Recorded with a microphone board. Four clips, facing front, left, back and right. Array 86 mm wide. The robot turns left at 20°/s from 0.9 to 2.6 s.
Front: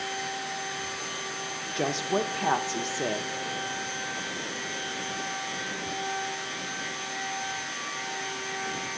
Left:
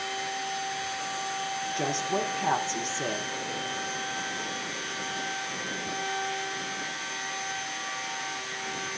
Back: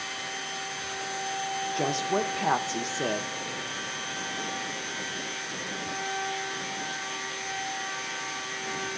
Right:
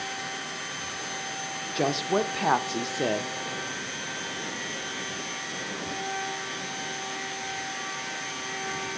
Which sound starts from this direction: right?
A woman speaking, at 1.8 s.